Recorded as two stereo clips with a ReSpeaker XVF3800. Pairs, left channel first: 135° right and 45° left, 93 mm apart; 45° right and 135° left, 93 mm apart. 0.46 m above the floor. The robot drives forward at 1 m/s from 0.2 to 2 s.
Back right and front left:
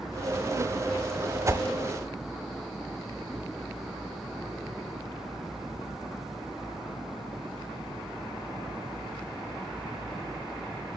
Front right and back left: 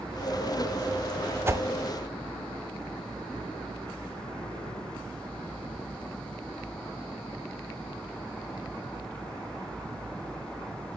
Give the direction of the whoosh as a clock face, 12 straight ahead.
9 o'clock.